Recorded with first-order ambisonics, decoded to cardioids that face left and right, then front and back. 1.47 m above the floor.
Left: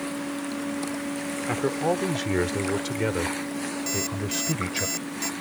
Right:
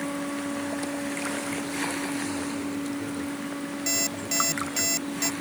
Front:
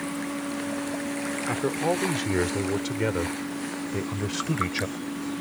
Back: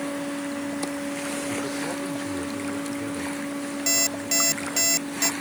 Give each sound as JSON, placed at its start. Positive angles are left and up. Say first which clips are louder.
{"t": 1.5, "sound": "a man speaking", "louder": "left 5 dB, front 3 dB", "azimuth_deg": 60}
{"t": 3.9, "sound": "an alarm clock", "louder": "right 4 dB, back 10 dB", "azimuth_deg": -165}